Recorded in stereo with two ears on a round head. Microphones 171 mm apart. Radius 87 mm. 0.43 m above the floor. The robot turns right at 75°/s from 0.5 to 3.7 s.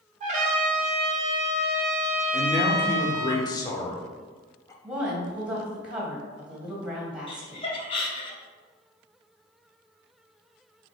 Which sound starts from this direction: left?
Laughter, at 7.3 s.